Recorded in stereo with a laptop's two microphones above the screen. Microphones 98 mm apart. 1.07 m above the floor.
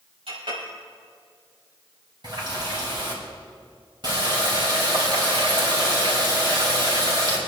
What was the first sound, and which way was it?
A clink, 85° right.